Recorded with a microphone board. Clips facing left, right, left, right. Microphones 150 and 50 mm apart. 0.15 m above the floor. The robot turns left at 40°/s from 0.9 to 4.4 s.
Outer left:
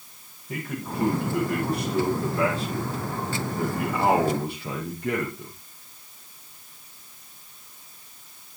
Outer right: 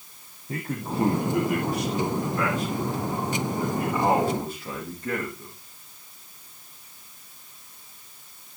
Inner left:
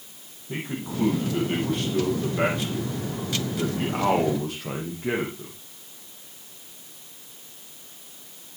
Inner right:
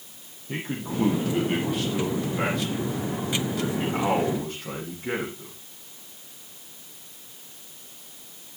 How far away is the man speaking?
About 6.5 m.